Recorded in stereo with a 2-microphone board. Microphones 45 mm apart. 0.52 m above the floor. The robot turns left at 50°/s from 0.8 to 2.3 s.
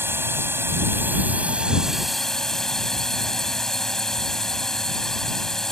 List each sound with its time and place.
0.0 s a drone: 115° right; by 5.7 s 170° left